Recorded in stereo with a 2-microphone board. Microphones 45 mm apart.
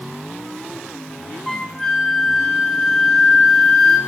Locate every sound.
1.5 s a flute: centre (ahead or behind), 0.9 m